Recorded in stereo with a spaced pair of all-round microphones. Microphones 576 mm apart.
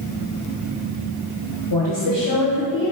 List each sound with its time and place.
1.7 s a woman speaking: 50° left (ahead or behind), 1.6 m